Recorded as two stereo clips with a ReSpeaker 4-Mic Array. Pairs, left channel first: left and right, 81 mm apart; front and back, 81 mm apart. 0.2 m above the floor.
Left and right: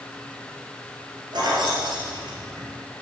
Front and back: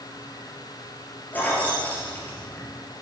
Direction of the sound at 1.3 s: 70° right.